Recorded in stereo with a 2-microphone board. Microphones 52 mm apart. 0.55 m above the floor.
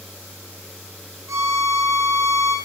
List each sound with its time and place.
1.3 s a violin: 65° right (ahead or behind), 4.5 m